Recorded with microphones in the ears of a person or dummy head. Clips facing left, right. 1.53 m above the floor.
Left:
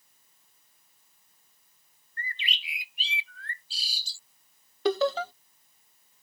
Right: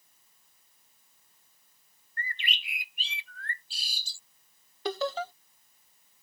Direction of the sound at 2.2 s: 45° right (ahead or behind).